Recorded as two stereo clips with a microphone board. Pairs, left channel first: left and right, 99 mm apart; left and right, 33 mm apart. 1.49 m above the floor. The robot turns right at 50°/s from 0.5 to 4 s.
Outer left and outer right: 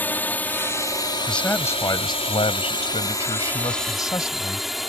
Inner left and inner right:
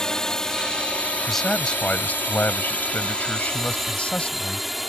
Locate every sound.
0.0 s a drone: 20° left (ahead or behind); by 4.9 s centre (ahead or behind)
1.3 s a man speaking: 5° left; by 4.7 s 140° left